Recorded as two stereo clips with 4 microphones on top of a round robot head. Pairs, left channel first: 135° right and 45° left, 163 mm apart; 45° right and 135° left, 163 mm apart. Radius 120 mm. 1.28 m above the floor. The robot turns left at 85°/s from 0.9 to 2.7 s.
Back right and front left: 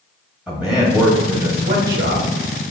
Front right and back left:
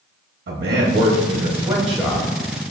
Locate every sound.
0.5 s a man speaking: 130° left, 0.9 m; by 2.3 s 10° left, 0.9 m